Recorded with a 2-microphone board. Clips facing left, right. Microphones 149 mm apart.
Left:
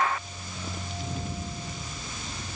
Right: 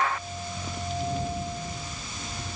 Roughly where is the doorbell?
I don't hear a doorbell.